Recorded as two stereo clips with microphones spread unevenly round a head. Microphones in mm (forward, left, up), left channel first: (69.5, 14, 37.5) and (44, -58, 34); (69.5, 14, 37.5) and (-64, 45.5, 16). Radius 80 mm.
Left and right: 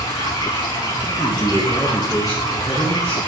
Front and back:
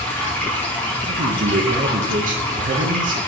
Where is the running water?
65° left, 4 m.